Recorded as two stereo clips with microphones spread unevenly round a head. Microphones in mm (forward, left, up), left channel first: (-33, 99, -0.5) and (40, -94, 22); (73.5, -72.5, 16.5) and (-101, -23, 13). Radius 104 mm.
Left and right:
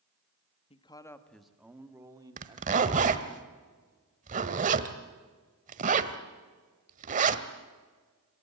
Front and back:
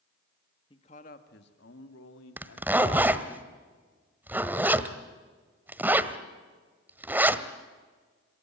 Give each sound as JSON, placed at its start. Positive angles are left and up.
{"t": 0.7, "sound": "a man speaking", "azimuth_deg": 50, "distance_m": 1.8}
{"t": 2.4, "sound": "a zipper", "azimuth_deg": -115, "distance_m": 1.4}